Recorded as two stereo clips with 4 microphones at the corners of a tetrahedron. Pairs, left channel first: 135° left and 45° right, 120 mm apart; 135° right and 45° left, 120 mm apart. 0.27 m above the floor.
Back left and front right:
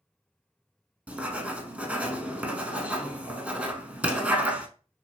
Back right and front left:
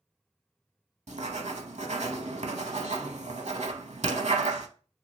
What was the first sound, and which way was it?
Writing, 35° left.